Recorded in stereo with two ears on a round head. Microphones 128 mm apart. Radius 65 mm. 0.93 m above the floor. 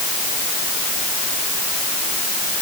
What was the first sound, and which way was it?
Only background noise.